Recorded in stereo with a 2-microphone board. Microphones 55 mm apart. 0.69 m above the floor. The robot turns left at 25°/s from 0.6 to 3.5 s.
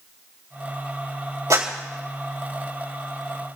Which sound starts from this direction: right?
A clap, at 1.5 s.